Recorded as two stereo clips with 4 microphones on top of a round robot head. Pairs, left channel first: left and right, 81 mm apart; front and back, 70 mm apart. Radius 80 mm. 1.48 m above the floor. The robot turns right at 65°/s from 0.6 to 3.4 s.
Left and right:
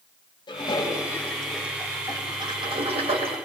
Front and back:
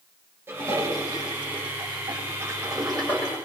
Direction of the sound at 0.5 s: 120° left.